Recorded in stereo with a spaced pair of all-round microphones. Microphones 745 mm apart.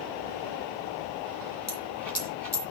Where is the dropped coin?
25° left (ahead or behind), 2 m.